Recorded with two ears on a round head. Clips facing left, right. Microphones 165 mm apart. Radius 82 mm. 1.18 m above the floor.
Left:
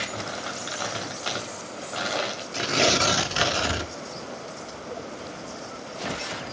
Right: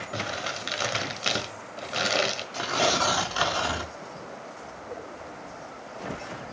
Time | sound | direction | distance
0.1 | crumpling | 30° right (ahead or behind) | 1.5 m
2.5 | tearing paper | 30° left (ahead or behind) | 0.7 m